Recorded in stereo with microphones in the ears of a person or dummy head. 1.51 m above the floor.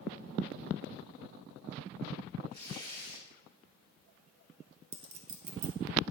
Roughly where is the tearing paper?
Right.